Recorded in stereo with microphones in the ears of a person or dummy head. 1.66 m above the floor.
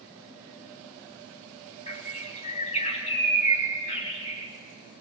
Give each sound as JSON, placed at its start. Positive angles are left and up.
{"t": 1.9, "sound": "a bird", "side_deg": 40, "distance_m": 3.0}